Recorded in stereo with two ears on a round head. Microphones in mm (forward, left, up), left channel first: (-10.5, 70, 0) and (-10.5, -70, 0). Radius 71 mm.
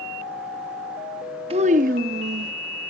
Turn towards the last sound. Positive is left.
turn(degrees=-85)